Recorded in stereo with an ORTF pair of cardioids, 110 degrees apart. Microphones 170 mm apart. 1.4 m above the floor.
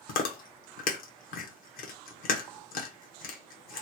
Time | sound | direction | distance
0.1 | chewing | 60° left | 1.0 m